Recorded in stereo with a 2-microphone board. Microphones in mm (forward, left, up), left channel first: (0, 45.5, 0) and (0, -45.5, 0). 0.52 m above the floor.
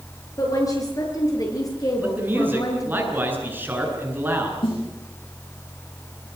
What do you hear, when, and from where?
0.4 s a woman speaking: 40° left (ahead or behind), 9 m
2.0 s a man speaking: 20° right (ahead or behind), 8.5 m
4.6 s a snare drum: 75° left (ahead or behind), 8.5 m